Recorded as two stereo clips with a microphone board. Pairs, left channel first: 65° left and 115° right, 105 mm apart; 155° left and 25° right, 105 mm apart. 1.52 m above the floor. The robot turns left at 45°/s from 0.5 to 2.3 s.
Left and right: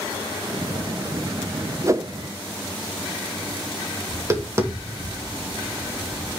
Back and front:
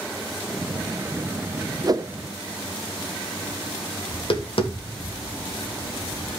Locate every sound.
1.8 s a whoosh: 60° right, 0.8 m; by 2.1 s 70° right, 0.8 m
4.1 s tapping: 175° right, 3 m